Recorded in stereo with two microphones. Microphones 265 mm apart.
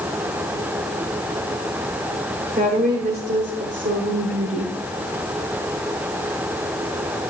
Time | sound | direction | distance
2.6 | a woman speaking | 30° right (ahead or behind) | 2.0 m